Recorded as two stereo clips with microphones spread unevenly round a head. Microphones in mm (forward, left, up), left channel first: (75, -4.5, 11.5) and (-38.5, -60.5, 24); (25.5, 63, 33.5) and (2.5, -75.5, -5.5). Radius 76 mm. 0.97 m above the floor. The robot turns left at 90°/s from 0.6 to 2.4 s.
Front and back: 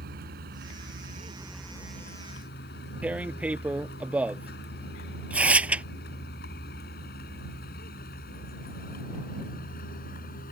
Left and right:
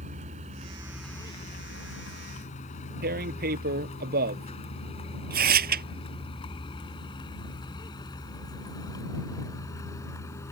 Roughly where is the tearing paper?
Right.